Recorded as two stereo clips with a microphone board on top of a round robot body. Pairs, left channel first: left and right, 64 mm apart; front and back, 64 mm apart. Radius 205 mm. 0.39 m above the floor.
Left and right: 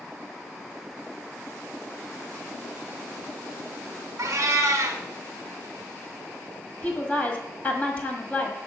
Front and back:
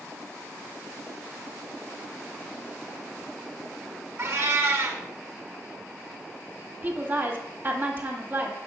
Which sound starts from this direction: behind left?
A woman speaking, at 6.8 s.